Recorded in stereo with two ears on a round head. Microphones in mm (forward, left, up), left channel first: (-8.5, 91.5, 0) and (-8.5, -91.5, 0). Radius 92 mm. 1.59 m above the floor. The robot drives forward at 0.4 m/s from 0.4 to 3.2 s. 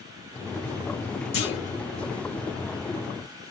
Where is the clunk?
55° left (ahead or behind), 3.5 m.